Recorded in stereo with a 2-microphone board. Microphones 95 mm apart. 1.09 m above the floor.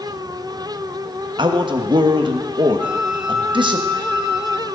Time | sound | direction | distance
1.4 | a man speaking | 60° right (ahead or behind) | 1.3 m
2.8 | a flute | 10° right (ahead or behind) | 1.0 m